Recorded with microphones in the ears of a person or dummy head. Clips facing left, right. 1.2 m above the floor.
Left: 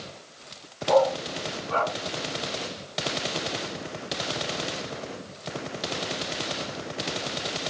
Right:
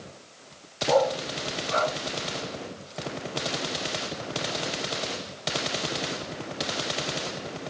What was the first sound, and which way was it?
A dog barking, 25° right (ahead or behind).